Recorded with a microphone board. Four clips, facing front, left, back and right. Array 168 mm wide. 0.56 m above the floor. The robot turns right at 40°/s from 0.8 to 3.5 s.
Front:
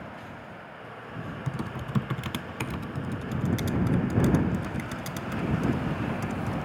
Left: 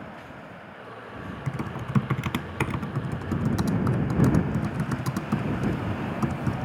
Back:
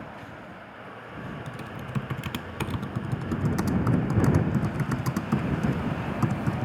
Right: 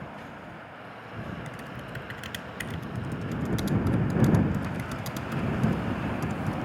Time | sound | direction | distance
1.5 | typing on a keyboard | 60° left | ?